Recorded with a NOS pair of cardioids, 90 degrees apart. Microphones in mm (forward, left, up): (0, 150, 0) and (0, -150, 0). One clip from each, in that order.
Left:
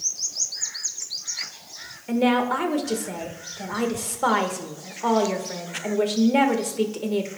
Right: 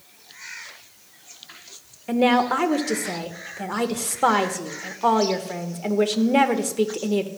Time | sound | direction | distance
2.1 | a woman speaking | 25° right | 1.5 m